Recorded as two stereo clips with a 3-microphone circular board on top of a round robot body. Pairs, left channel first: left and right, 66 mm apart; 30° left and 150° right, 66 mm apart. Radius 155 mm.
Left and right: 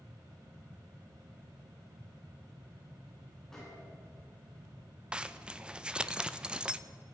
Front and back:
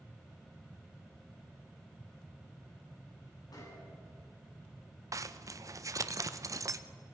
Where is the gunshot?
10° left, 8 m.